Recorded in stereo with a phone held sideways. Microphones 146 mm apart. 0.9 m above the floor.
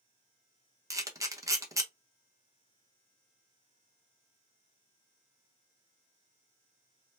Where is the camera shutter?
20° right (ahead or behind), 0.7 m.